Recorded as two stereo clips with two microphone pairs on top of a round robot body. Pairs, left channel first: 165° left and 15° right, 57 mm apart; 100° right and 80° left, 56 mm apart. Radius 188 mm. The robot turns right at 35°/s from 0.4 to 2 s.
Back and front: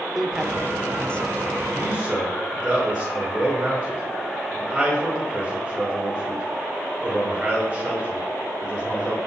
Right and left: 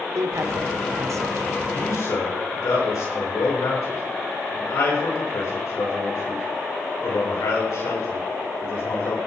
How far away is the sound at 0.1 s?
About 1.8 m.